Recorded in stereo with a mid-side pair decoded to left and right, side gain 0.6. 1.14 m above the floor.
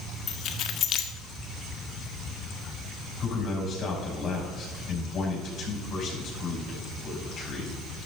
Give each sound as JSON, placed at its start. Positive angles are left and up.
{"t": 0.3, "sound": "keys jangling", "azimuth_deg": 55, "distance_m": 1.5}
{"t": 3.2, "sound": "a man speaking", "azimuth_deg": 50, "distance_m": 7.0}